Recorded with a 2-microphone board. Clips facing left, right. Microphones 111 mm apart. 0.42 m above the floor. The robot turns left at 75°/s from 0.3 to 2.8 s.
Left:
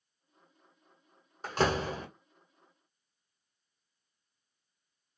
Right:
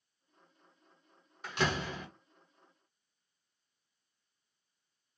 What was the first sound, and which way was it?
A door slam, 105° left.